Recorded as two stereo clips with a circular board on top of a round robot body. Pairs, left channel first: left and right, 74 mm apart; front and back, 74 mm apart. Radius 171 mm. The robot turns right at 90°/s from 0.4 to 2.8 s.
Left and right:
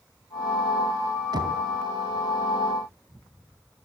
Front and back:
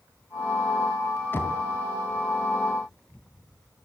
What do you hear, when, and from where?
1.3 s knocking: 65° right, 3 m; by 1.6 s 40° right, 3 m